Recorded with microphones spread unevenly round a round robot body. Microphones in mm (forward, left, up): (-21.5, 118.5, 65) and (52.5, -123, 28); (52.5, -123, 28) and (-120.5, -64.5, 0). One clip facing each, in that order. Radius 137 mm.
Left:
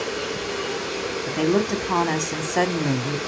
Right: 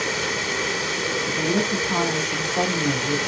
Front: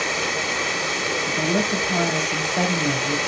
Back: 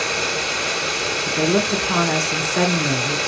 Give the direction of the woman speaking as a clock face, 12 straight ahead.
8 o'clock.